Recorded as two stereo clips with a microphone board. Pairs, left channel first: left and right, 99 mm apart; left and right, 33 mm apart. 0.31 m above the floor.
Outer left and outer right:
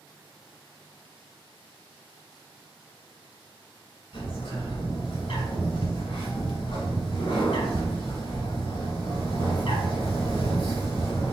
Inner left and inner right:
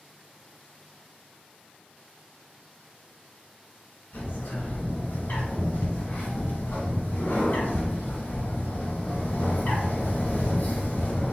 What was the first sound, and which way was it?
A bird, 65° left (ahead or behind).